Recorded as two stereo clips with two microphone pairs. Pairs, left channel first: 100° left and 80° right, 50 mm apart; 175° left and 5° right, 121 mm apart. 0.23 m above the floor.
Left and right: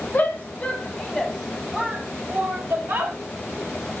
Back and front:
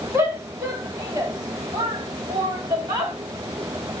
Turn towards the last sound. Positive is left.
turn(degrees=-55)